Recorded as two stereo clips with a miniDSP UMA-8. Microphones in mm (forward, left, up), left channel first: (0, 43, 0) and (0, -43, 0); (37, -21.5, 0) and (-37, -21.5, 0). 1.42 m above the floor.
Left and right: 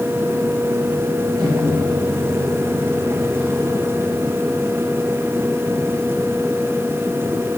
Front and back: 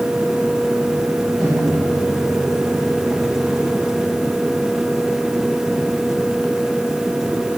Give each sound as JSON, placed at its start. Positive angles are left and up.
{"t": 1.4, "sound": "a microwave", "azimuth_deg": -95, "distance_m": 6.0}